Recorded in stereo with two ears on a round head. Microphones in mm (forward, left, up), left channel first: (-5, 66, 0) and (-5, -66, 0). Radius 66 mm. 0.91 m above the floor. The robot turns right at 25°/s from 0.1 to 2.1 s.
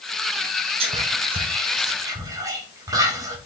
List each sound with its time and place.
0.8 s whispering: 40° right (ahead or behind), 0.9 m; by 3.4 s 25° right (ahead or behind), 0.9 m